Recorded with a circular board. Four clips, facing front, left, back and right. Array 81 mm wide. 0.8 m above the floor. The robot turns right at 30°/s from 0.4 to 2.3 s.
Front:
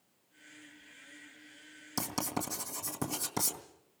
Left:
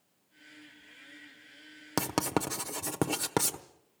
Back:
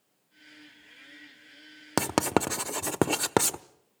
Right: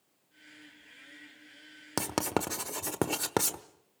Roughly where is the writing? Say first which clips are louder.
Left 1 dB, back 11 dB; behind.